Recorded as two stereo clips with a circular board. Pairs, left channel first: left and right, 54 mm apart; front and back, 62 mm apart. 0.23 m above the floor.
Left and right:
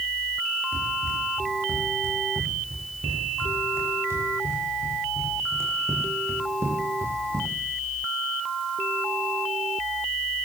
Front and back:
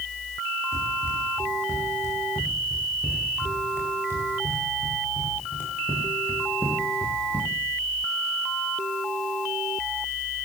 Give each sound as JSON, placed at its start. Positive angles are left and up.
{"t": 0.7, "sound": "running footsteps", "azimuth_deg": -45, "distance_m": 9.5}